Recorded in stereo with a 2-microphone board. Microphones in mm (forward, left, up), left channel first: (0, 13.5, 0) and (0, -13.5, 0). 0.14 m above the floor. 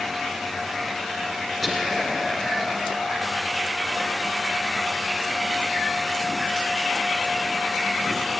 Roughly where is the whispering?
Centre.